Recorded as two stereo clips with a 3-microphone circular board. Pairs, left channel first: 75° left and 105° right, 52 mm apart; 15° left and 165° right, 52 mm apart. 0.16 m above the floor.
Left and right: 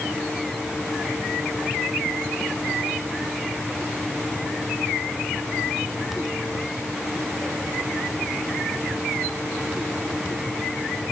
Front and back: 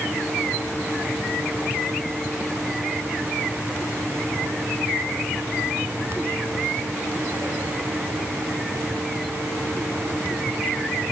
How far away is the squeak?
No squeak in this recording.